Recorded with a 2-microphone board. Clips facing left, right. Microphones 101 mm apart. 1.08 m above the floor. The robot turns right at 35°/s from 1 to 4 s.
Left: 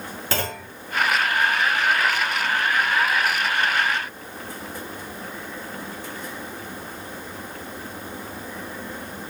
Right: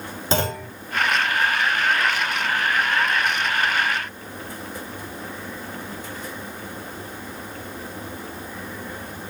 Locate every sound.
0.3 s a clunk: 20° right (ahead or behind), 2 m